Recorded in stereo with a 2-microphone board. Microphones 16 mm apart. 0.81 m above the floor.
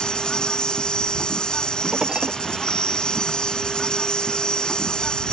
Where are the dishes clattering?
60° right (ahead or behind).